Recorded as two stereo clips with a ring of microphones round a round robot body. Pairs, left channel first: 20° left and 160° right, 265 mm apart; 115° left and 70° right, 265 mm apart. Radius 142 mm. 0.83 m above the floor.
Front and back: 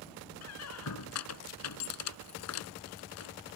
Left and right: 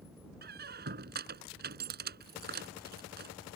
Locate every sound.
0.4 s a squeak: 10° right